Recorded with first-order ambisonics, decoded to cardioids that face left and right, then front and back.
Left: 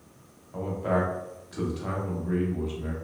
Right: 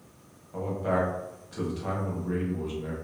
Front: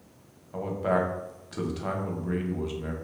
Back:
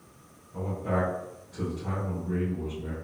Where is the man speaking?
5° left, 0.7 m.